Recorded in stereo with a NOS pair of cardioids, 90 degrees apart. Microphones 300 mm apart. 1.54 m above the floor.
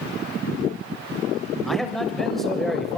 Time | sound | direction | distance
1.7 | a man speaking | straight ahead | 6.5 m